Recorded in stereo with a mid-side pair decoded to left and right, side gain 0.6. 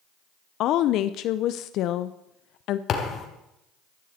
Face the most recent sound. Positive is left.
turn(degrees=50)